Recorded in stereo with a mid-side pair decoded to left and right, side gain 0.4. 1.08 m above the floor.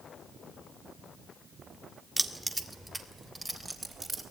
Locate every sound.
2.2 s keys jangling: 15° right, 2.0 m